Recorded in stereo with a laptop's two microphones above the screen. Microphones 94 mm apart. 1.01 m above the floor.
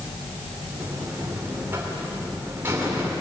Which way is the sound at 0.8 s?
25° right (ahead or behind).